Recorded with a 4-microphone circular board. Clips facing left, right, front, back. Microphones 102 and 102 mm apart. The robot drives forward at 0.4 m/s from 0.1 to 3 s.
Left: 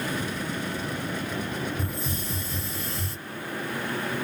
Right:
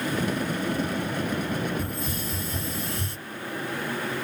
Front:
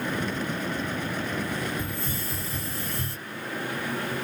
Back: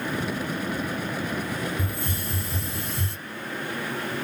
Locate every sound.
1.8 s a hiss: straight behind, 2.5 m